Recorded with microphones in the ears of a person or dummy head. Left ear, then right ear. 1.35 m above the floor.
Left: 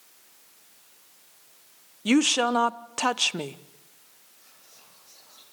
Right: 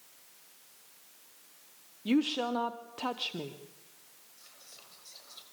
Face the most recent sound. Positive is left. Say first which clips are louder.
# right 2 dB
turn(degrees=-40)  # may be behind; listen again after turning